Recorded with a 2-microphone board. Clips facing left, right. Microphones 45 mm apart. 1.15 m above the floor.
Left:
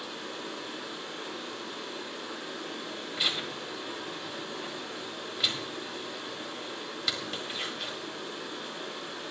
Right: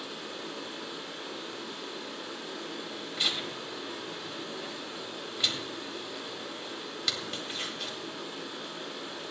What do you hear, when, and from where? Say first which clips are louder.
0.0 s running water: left 1 dB; centre (ahead or behind), 4.5 m
3.2 s tearing paper: left 1 dB; 5° left (ahead or behind), 2 m